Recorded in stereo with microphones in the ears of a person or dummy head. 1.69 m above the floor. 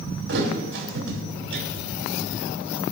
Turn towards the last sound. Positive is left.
turn(degrees=-65)  # may be behind; listen again after turning